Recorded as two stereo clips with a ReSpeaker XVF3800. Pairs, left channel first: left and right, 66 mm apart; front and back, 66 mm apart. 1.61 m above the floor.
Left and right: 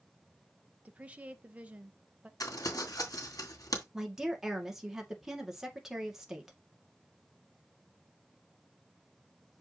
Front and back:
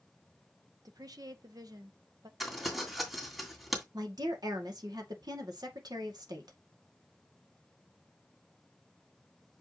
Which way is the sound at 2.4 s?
90° left.